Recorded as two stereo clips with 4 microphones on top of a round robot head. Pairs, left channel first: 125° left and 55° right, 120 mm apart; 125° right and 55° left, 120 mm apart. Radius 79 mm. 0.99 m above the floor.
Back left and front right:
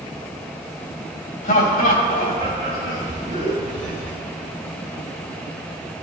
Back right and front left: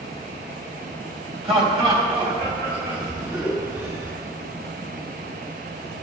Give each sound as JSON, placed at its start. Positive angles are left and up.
{"t": 1.4, "sound": "laughter", "azimuth_deg": 100, "distance_m": 5.5}